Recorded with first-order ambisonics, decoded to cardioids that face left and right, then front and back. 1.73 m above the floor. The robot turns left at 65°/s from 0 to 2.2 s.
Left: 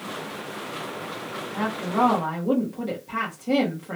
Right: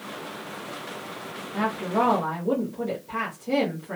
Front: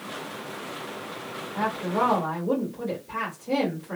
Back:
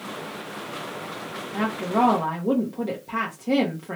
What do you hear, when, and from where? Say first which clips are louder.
1.5 s a woman speaking: even, back 2 dB; 155° right, 0.9 m; by 4.0 s 160° left, 0.9 m